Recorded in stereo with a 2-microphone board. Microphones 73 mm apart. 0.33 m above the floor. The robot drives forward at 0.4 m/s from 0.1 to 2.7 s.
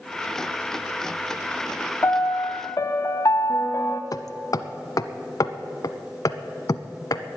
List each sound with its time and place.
2.0 s a piano: 40° left (ahead or behind), 1.0 m; by 4.0 s 55° left (ahead or behind), 0.8 m
4.1 s hammering: 55° left (ahead or behind), 0.6 m